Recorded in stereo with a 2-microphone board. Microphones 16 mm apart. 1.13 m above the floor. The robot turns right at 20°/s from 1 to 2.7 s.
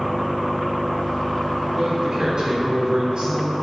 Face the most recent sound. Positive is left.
turn(degrees=-50)  # may be behind; listen again after turning